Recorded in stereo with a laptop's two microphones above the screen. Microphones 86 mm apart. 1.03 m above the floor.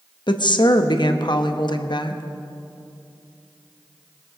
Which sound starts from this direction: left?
A woman speaking, at 0.3 s.